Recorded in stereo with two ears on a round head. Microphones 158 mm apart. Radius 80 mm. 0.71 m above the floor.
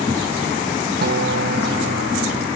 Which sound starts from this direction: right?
A guitar, at 1.0 s.